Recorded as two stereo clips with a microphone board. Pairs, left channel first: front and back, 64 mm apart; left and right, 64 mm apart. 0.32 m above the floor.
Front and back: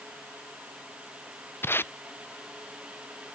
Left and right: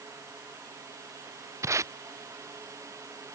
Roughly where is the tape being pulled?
Ahead right.